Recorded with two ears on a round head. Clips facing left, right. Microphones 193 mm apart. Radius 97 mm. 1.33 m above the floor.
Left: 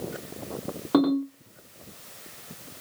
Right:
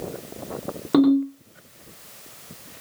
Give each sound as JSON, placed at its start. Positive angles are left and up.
{"t": 0.9, "sound": "a ringtone", "side_deg": -30, "distance_m": 1.5}